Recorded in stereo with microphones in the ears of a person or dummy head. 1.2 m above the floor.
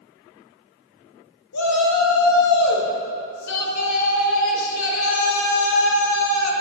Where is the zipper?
No zipper in this recording.